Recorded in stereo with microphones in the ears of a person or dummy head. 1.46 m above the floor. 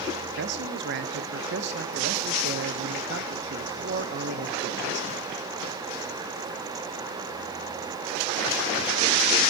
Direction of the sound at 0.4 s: 60° right (ahead or behind).